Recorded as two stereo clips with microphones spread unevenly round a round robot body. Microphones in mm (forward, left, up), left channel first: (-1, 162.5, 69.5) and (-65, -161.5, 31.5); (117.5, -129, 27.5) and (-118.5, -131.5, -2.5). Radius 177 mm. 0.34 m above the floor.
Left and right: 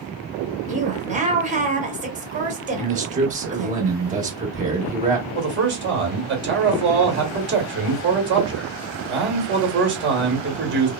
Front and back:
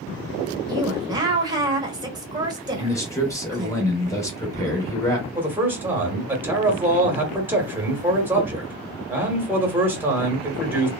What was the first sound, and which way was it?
A woman speaking, 135° right.